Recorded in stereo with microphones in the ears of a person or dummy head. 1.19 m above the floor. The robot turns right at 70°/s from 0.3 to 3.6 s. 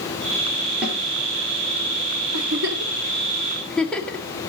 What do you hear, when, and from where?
0.8 s a snare drum: 5° right (ahead or behind), 4.5 m; by 1.0 s 15° right (ahead or behind), 4.5 m
2.3 s a giggle: 80° right, 1.8 m; by 4.3 s 5° left (ahead or behind), 1.8 m